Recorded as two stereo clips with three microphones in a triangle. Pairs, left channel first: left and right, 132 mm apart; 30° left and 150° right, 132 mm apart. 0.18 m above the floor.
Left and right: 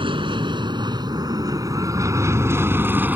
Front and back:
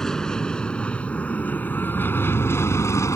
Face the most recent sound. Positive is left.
turn(degrees=-20)